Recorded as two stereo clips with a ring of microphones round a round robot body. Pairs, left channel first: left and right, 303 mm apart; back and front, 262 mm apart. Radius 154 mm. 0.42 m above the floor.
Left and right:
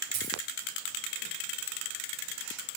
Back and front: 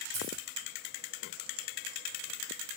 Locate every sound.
0.1 s a dropped coin: 55° right, 5 m